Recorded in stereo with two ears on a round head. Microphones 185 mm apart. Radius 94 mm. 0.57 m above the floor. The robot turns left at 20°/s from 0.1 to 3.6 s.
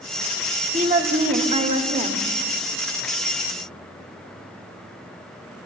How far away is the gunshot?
I don't hear a gunshot.